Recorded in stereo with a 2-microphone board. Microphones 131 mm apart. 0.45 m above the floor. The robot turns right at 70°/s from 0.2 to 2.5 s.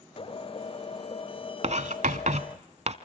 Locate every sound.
1.6 s writing: 55° right (ahead or behind), 0.9 m; by 2.9 s 60° right (ahead or behind), 0.9 m